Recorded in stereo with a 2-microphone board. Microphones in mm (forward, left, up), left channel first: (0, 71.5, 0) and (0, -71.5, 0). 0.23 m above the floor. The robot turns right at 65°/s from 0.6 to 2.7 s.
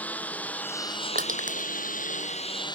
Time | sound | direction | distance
0.0 | a lawn mower | 10° left | ?
1.1 | crushing | 80° right | ?